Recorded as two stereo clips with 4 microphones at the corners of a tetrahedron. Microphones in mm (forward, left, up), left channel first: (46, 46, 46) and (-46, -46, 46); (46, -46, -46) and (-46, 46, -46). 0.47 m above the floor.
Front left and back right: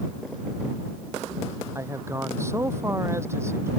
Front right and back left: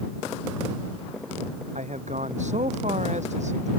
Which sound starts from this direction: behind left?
A man speaking, at 1.8 s.